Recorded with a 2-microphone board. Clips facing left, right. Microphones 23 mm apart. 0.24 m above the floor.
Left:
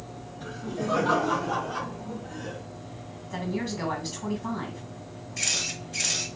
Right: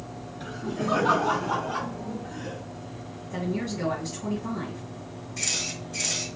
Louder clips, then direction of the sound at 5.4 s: Left 1 dB; 10° left (ahead or behind).